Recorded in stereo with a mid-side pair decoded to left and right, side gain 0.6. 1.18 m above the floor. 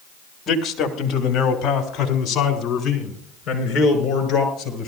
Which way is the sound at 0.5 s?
45° left.